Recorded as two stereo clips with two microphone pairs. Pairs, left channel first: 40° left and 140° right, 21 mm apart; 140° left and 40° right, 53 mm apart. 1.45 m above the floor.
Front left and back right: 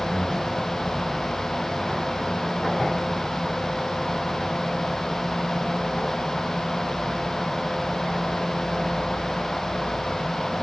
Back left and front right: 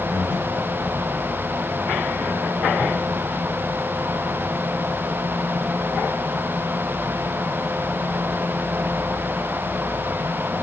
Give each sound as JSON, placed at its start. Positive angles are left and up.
{"t": 0.1, "sound": "breathing", "azimuth_deg": 120, "distance_m": 5.5}